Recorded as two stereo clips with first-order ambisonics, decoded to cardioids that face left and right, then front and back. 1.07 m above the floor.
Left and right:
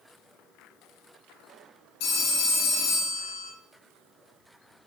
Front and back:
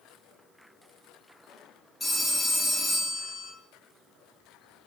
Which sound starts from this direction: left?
A phone ringing, at 2.0 s.